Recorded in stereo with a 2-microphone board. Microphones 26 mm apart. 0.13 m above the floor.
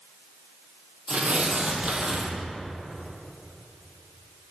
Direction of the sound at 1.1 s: 45° right (ahead or behind).